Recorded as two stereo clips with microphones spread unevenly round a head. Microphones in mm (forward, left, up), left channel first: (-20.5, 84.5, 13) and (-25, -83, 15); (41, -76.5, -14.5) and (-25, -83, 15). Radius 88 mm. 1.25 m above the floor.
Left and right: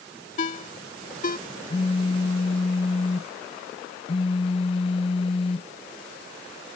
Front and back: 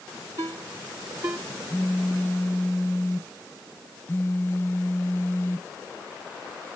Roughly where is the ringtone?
Behind left.